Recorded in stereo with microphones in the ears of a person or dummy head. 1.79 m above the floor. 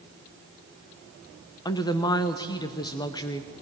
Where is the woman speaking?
20° left (ahead or behind), 1.0 m.